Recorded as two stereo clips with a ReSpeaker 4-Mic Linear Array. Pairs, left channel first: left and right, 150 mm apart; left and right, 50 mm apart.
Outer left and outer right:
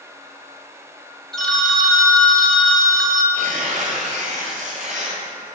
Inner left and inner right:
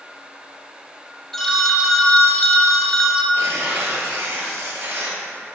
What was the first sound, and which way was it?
A phone ringing, 5° left (ahead or behind).